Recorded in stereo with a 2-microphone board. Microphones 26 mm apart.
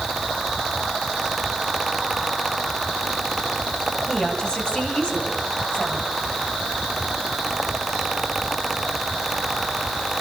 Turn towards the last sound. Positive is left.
turn(degrees=55)  # may be behind; listen again after turning